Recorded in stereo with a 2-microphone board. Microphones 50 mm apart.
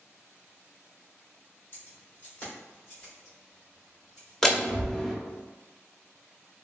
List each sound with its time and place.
1.7 s keys jangling: 50° left (ahead or behind), 1.3 m; by 4.3 s 15° left (ahead or behind), 2.5 m
4.4 s a door slam: 10° left (ahead or behind), 0.6 m